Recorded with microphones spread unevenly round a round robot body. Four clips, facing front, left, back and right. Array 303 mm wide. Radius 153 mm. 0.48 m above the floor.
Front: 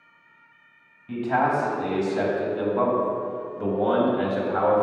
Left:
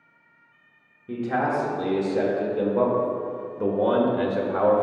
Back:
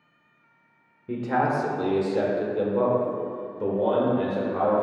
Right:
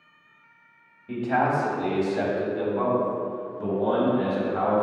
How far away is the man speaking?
About 1.6 m.